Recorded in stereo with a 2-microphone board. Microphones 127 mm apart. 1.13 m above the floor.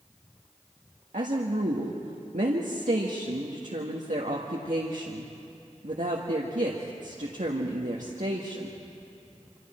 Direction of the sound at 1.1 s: 80° right.